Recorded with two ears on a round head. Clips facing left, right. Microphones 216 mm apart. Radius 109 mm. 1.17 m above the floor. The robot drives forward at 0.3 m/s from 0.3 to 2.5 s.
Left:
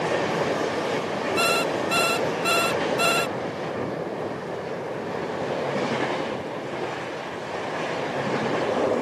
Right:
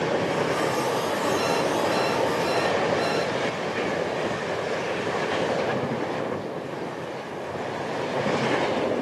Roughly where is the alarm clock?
Left.